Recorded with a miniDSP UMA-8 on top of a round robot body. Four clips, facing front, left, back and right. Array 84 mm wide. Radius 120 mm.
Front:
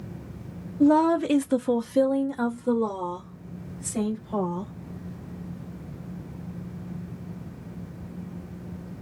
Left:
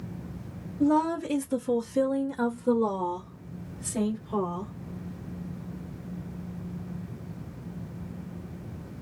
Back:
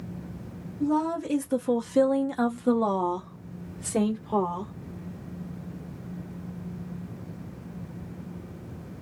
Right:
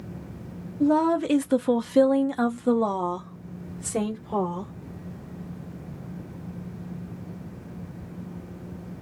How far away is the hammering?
I don't hear hammering.